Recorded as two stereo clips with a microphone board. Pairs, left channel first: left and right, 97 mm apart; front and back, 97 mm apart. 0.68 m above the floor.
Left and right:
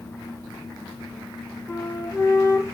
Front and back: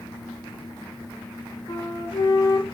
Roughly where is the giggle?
No giggle in this recording.